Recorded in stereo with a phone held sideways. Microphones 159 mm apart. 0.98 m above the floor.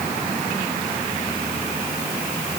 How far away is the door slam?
I don't hear a door slam.